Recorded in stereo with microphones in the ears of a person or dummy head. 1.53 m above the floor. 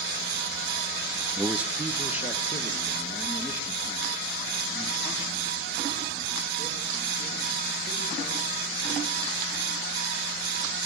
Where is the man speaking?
15° right (ahead or behind), 0.6 m.